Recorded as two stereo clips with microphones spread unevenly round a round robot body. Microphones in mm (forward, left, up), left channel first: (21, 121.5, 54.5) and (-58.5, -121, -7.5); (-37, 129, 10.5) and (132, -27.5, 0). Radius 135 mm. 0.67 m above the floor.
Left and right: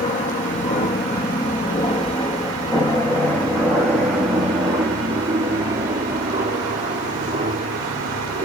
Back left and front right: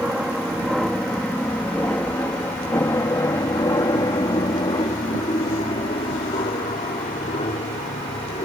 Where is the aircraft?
40° left; by 8.5 s 160° right.